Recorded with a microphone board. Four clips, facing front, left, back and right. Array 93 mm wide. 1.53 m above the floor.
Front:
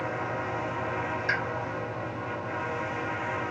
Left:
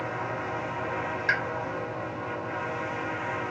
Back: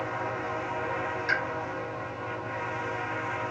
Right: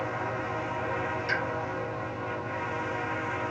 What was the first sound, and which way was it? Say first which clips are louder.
A pop: left 5 dB, back 1 dB; 90° left.